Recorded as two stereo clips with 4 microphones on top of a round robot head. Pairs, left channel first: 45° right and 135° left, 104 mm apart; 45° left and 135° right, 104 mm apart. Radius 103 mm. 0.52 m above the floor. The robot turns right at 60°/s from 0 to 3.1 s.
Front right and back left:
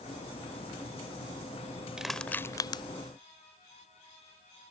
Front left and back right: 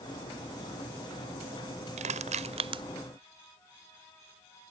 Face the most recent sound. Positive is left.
turn(degrees=-75)